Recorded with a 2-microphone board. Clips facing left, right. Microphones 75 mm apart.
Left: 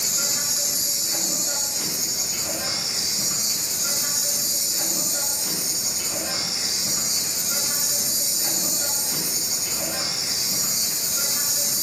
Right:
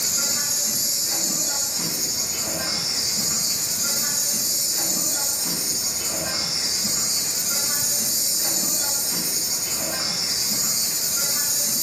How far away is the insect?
About 2 m.